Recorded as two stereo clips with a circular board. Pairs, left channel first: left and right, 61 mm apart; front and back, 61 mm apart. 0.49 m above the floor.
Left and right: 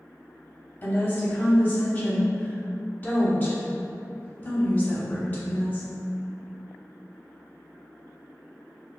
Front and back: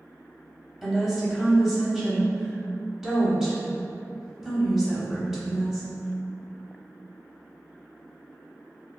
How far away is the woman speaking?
About 1.0 m.